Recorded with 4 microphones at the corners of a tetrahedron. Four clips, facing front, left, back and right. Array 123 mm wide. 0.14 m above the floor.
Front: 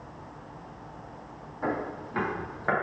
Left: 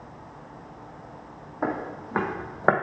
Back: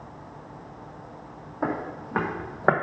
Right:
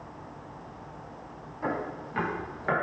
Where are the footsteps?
130° left, 2 m.